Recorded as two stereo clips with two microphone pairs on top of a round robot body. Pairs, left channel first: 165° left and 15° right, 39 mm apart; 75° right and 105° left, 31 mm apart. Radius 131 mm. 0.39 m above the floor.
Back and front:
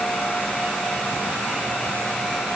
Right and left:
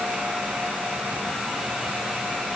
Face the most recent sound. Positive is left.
No sound to turn to.